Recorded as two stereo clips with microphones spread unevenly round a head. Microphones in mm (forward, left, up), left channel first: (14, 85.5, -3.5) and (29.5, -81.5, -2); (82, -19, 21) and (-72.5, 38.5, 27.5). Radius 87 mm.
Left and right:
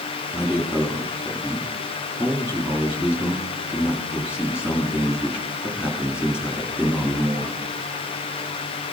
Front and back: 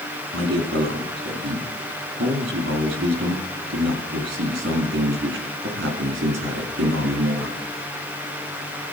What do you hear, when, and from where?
0.3 s a man speaking: 170° right, 2.5 m